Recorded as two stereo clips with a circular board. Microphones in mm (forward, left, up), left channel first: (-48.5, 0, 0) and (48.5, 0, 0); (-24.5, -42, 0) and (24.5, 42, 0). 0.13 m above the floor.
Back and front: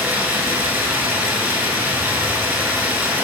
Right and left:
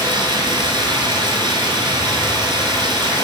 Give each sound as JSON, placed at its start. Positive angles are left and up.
{"t": 0.0, "sound": "running water", "azimuth_deg": 60, "distance_m": 0.8}